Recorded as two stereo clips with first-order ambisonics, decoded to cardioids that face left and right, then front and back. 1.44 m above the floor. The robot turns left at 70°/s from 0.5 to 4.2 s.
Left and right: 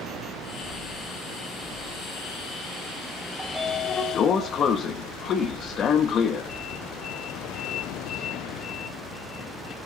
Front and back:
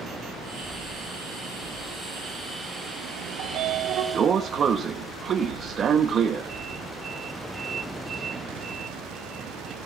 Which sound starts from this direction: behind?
A sliding door, at 3.4 s.